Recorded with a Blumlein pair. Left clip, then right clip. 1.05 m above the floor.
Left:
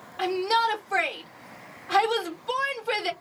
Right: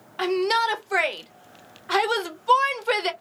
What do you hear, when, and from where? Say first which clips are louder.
0.2 s a shout: right 2 dB; 20° right, 0.8 m